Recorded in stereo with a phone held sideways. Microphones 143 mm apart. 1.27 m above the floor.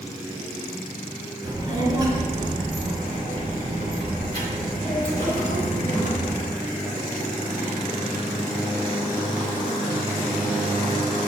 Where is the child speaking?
25° right (ahead or behind), 3 m; by 6.4 s 90° right, 4 m.